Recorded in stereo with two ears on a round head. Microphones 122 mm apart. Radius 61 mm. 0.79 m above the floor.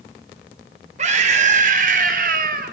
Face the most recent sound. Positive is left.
turn(degrees=-70)  # may be behind; listen again after turning